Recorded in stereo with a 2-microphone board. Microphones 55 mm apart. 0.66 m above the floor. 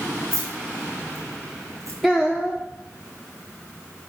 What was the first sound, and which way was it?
Keys jangling, 50° right (ahead or behind).